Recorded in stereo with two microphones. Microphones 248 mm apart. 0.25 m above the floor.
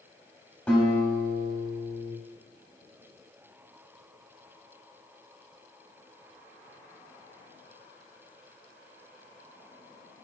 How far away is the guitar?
About 1.1 m.